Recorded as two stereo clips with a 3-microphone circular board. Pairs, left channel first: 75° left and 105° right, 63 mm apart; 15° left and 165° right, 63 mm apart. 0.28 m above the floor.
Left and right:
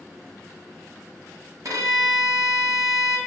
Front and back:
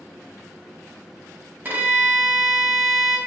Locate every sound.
1.6 s a violin: 105° right, 0.9 m